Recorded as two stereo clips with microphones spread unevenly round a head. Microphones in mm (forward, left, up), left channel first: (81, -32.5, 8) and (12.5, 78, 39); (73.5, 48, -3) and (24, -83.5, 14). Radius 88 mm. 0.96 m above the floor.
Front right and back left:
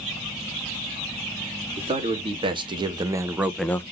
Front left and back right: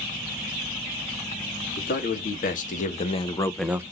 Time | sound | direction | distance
1.8 | a man speaking | 70° left | 2.5 m